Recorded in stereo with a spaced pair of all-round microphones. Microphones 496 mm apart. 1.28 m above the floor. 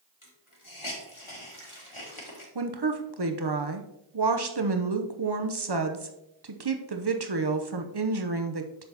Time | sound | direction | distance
0.2 | a hiss | 75° left (ahead or behind) | 2.0 m
2.5 | a woman speaking | 50° right (ahead or behind) | 0.8 m